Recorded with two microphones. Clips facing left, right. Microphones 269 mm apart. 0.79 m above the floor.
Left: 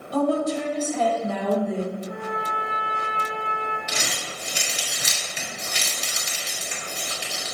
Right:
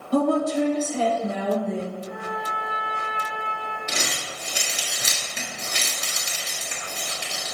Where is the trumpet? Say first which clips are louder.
Left 2 dB; 65° right (ahead or behind), 2.5 m.